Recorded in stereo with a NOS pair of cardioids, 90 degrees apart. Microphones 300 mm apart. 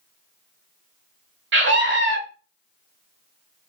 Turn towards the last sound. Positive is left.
turn(degrees=-40)